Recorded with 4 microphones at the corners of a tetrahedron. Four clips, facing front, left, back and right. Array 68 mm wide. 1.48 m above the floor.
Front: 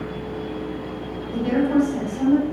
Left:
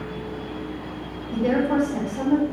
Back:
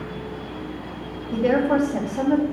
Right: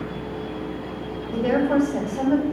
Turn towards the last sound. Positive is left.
turn(degrees=-170)